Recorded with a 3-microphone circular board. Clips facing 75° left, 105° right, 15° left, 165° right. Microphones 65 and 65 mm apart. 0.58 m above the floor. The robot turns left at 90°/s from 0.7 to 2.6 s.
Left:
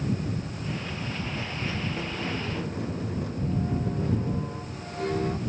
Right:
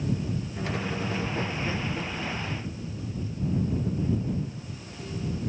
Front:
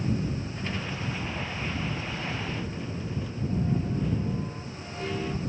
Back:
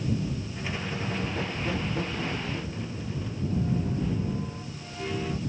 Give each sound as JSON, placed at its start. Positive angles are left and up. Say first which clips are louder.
{"t": 0.6, "sound": "a squeak", "louder": "right 3 dB, back 1 dB", "azimuth_deg": -85}